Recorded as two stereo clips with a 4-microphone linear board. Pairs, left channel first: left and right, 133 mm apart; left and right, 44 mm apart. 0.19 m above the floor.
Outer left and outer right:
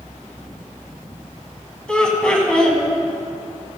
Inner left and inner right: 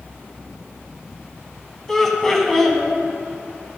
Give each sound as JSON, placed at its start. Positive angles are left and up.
{"t": 1.9, "sound": "laughter", "side_deg": 5, "distance_m": 1.1}